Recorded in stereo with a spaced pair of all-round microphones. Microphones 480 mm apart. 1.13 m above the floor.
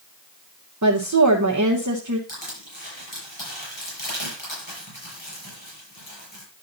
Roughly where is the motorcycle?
No motorcycle in this recording.